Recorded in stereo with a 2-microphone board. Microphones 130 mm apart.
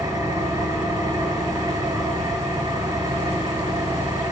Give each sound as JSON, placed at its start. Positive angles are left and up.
{"t": 0.0, "sound": "an engine running", "side_deg": -25, "distance_m": 1.4}